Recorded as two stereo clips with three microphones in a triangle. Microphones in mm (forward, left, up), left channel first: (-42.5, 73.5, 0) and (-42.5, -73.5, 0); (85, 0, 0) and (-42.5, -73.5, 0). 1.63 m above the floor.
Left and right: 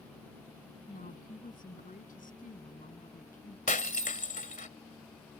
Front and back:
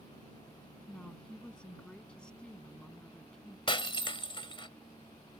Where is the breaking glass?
80° left.